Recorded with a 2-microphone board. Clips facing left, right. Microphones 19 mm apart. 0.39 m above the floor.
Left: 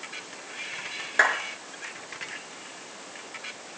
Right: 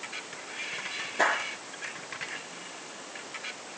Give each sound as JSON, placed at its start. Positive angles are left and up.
{"t": 1.2, "sound": "a clap", "side_deg": 70, "distance_m": 5.0}